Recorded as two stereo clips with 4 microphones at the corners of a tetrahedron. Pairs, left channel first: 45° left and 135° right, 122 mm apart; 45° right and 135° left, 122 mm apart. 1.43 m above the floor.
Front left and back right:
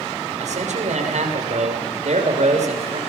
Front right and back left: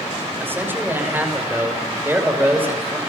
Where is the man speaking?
150° right, 6.5 m.